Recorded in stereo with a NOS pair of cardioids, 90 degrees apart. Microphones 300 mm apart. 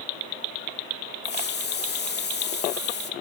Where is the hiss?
35° left, 2.5 m.